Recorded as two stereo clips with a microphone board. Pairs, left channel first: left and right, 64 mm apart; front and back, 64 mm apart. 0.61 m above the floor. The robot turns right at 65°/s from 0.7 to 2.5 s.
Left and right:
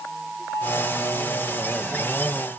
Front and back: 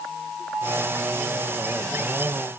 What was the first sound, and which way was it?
Only background noise.